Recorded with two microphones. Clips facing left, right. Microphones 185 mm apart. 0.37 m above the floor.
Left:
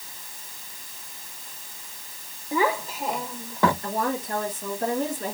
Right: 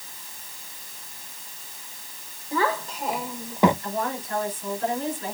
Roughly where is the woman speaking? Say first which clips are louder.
Left 2 dB; left.